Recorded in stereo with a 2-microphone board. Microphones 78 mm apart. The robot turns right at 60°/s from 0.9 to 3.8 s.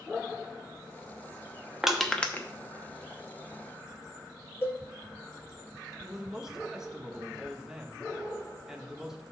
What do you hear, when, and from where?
1.8 s crushing: 5° right (ahead or behind), 0.8 m; by 2.5 s 30° left (ahead or behind), 0.8 m
4.6 s a cowbell: 35° left (ahead or behind), 3 m
6.0 s a man speaking: 5° right (ahead or behind), 0.9 m